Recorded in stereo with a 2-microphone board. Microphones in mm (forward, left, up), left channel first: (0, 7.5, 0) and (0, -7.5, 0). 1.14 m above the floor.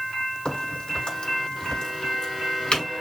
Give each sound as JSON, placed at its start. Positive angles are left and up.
{"t": 0.5, "sound": "a crack", "side_deg": 65, "distance_m": 4.5}